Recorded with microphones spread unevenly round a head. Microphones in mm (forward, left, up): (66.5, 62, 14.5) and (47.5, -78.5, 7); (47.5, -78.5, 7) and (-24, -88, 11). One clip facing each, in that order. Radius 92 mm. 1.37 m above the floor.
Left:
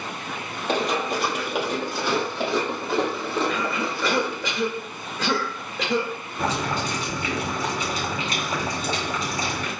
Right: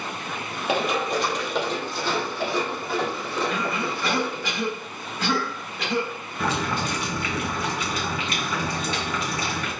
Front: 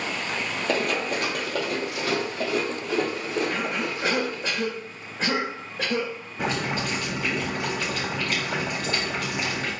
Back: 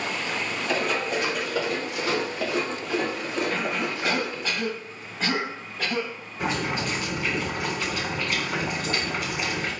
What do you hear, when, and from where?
0.7 s running footsteps: 15° right, 1.7 m; by 4.5 s 30° left, 3 m
3.5 s a cough: 65° left, 2.5 m
6.4 s boiling: 25° left, 3 m